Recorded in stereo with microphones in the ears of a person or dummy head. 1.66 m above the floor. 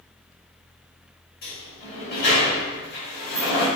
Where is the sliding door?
55° left (ahead or behind), 1.0 m.